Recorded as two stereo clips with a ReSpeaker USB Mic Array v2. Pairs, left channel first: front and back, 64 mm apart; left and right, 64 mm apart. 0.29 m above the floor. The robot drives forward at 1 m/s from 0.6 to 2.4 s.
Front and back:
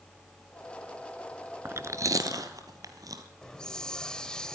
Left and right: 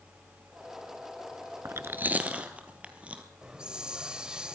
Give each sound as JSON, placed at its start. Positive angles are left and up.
{"t": 1.6, "sound": "chewing", "azimuth_deg": -130, "distance_m": 0.5}
{"t": 3.4, "sound": "a hiss", "azimuth_deg": -50, "distance_m": 1.1}